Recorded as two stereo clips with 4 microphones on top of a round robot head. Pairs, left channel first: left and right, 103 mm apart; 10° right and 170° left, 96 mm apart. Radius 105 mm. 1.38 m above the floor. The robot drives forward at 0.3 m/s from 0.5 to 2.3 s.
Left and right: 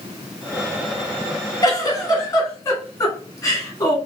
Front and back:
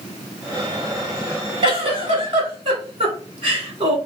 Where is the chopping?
No chopping in this recording.